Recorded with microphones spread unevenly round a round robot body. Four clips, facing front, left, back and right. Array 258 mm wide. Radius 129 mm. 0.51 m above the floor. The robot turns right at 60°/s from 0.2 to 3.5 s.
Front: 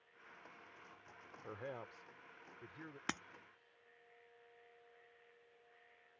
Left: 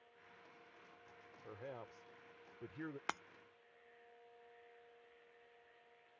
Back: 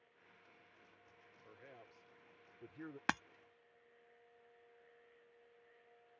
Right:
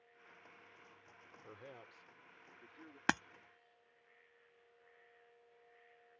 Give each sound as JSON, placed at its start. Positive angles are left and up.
{"t": 1.4, "sound": "a man speaking", "azimuth_deg": 5}
{"t": 3.1, "sound": "breaking glass", "azimuth_deg": -110}